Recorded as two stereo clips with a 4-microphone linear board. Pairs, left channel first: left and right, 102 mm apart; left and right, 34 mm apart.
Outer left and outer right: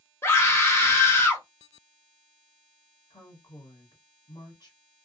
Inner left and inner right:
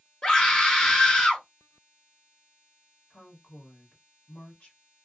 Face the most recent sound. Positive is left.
turn(degrees=40)  # may be behind; listen again after turning